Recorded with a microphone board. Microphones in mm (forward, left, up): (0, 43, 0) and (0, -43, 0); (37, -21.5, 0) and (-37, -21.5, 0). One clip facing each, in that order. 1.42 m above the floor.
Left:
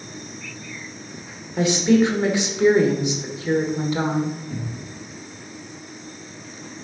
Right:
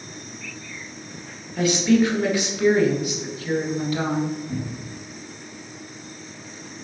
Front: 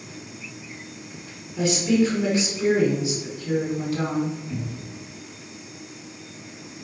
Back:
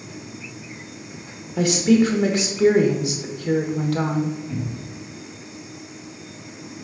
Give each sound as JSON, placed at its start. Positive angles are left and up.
{"t": 1.6, "sound": "a woman speaking", "azimuth_deg": 155, "distance_m": 1.8}
{"t": 4.5, "sound": "a cupboard door", "azimuth_deg": -105, "distance_m": 3.0}